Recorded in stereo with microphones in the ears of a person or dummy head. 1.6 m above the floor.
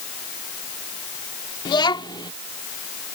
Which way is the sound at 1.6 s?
25° left (ahead or behind).